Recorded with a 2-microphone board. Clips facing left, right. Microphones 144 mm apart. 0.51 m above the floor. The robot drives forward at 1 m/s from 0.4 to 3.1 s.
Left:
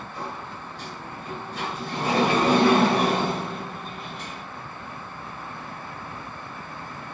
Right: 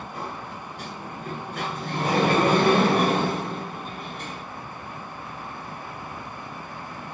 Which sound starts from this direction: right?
A sliding door, at 0.1 s.